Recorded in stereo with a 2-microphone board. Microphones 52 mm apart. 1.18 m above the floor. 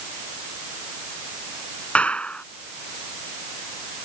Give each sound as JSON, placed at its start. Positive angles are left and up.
{"t": 1.9, "sound": "a clap", "side_deg": 25}